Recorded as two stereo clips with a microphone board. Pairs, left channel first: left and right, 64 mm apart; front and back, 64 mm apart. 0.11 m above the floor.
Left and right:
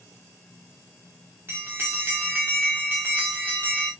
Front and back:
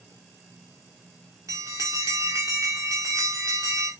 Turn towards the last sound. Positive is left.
turn(degrees=-145)